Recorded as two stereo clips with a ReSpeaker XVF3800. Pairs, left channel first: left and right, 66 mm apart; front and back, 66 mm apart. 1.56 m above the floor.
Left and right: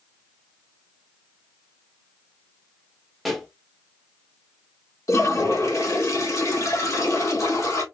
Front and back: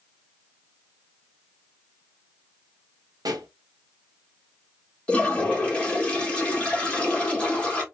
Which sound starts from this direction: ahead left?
A toilet flushing, at 5.1 s.